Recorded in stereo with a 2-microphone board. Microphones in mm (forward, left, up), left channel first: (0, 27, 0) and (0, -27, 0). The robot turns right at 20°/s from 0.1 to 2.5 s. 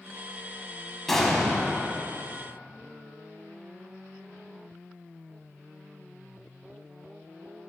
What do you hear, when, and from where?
1.1 s an explosion: 5° left (ahead or behind), 1.5 m; by 2.0 s centre (ahead or behind), 1.5 m